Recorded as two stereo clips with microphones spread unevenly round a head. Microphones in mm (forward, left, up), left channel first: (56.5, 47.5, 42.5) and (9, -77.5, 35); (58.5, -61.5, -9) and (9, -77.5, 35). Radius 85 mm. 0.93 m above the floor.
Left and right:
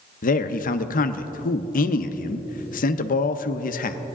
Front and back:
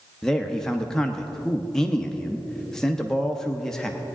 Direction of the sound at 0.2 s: 75° left.